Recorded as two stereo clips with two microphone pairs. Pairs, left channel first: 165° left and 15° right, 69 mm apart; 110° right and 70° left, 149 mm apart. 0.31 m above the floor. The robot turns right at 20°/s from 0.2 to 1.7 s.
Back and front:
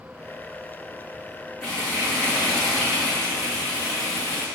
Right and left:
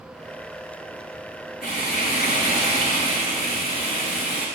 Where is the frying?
115° right, 5 m.